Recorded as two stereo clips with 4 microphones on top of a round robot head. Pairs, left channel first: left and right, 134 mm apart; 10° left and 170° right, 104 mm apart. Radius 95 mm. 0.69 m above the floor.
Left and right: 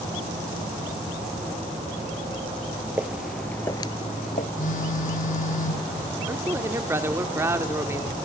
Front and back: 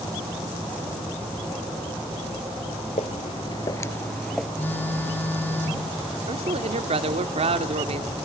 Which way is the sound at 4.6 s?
80° left.